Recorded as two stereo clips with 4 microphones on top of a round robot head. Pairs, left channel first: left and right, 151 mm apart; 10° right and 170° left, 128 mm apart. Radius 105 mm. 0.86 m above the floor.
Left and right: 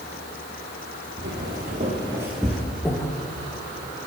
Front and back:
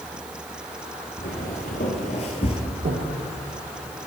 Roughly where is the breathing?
Behind.